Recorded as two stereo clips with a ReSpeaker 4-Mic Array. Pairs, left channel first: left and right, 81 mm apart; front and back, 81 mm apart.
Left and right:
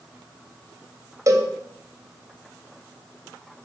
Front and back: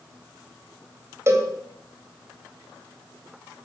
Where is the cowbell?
130° right, 2.5 m.